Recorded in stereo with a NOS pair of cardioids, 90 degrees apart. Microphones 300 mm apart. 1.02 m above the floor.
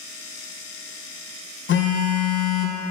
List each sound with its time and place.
1.7 s a phone buzzing: 45° left, 0.6 m